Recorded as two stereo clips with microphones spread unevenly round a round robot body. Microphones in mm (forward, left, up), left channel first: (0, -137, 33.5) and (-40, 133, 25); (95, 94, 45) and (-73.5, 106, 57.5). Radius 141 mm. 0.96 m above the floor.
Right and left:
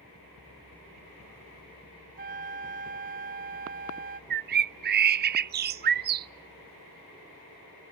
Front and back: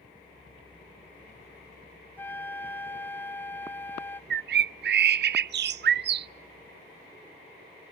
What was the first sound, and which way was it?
A flute, 70° left.